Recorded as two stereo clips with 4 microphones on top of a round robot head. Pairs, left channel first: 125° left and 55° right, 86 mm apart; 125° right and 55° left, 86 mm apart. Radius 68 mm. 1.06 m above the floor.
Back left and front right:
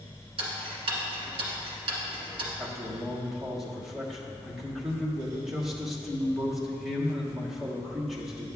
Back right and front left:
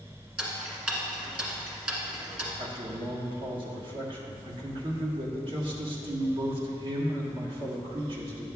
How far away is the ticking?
About 1.4 m.